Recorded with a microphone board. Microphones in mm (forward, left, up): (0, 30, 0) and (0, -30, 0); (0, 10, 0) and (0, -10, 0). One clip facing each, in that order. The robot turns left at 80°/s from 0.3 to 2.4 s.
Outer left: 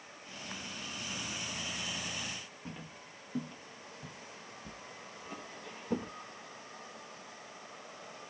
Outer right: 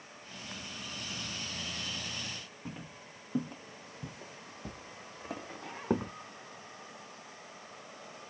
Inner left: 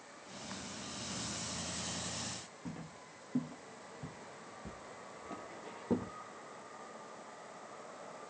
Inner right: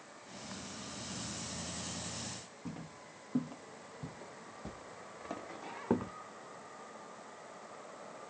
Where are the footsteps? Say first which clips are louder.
Outer right 1 dB, inner right 3 dB; 5° right (ahead or behind), 1.2 m; by 6.1 s 70° right (ahead or behind), 1.7 m.